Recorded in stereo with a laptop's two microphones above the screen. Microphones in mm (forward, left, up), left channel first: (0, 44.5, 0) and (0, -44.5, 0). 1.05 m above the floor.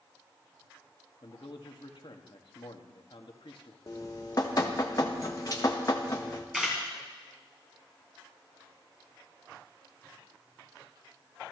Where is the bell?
I don't hear a bell.